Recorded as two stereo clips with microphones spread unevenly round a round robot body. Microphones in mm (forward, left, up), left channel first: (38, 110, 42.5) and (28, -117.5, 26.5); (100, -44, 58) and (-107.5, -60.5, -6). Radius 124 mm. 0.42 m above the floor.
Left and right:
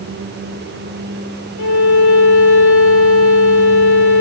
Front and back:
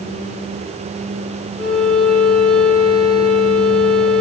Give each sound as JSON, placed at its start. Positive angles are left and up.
{"t": 1.6, "sound": "a violin", "azimuth_deg": 95, "distance_m": 2.5}